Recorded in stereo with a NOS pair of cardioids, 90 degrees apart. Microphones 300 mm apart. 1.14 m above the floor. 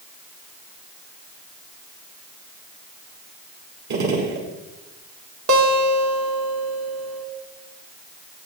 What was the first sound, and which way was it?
A gunshot, 65° right.